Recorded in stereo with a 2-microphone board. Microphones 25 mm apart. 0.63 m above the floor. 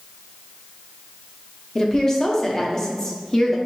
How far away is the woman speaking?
About 0.7 m.